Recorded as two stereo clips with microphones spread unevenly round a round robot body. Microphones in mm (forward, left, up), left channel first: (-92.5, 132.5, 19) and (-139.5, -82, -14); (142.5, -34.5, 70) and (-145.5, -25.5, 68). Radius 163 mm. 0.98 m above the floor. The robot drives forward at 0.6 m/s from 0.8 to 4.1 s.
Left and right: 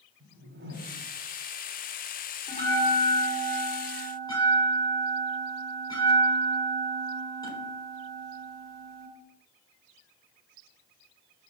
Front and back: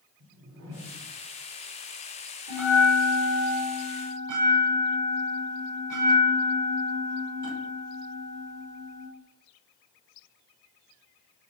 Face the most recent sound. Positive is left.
turn(degrees=150)